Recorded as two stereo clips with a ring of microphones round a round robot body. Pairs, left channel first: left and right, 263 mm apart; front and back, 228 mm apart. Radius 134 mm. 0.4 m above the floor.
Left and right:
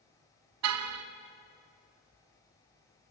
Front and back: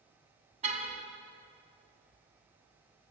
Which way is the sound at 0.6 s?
115° right.